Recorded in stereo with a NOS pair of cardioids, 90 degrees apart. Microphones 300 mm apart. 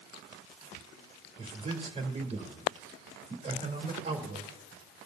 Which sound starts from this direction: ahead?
A man speaking, at 1.4 s.